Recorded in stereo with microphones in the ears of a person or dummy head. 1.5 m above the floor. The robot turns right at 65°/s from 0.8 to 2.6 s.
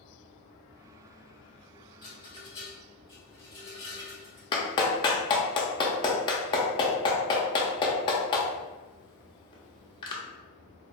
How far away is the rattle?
About 1.0 m.